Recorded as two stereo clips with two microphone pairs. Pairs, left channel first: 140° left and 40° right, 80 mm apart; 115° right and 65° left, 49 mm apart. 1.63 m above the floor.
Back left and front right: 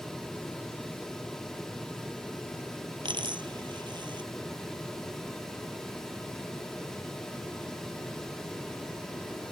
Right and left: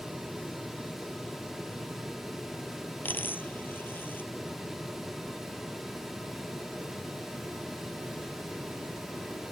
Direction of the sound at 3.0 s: 65° right.